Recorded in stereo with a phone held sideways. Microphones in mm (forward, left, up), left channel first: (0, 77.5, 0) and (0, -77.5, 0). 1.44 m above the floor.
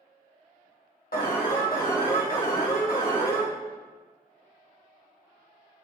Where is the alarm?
75° left (ahead or behind), 1.5 m.